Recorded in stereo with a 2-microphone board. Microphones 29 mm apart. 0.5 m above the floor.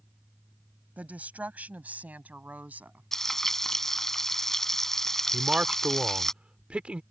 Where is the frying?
15° left (ahead or behind).